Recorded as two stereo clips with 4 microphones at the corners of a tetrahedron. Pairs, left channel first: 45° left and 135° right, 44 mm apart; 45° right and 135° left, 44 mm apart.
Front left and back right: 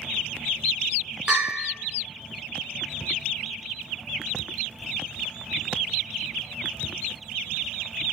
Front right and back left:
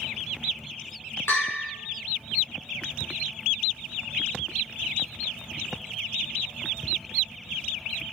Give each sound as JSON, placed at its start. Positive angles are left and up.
{"t": 1.3, "sound": "a bell", "azimuth_deg": -65, "distance_m": 4.5}